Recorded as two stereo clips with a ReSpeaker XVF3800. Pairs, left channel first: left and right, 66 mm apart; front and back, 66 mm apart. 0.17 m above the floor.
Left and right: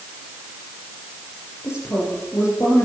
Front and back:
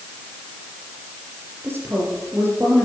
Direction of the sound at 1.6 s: 130° left.